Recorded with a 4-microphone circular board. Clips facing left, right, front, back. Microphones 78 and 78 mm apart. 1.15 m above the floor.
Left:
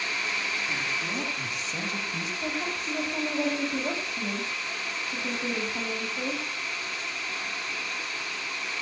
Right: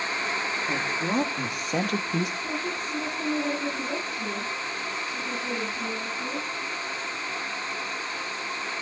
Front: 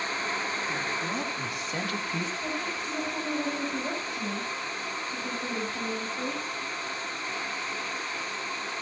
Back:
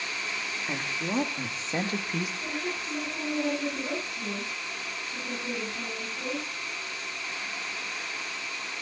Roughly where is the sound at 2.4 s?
Left.